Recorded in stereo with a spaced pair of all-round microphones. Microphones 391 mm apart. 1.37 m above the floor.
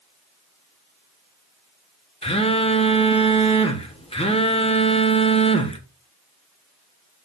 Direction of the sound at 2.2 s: 15° left (ahead or behind).